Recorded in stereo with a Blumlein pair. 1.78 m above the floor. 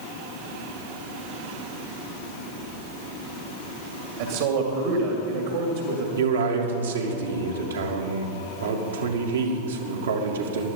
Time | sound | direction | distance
4.2 | a man speaking | 60° right | 2.5 m
6.2 | a man speaking | 70° right | 2.5 m